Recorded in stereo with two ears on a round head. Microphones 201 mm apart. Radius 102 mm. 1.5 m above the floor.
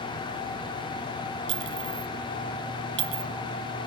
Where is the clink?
55° right (ahead or behind), 0.8 m.